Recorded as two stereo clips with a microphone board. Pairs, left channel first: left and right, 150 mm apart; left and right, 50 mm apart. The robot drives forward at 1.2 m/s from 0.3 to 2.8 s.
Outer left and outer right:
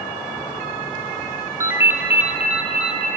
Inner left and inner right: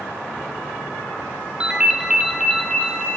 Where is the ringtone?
20° right (ahead or behind), 0.7 m; by 3.1 s 5° right (ahead or behind), 2 m.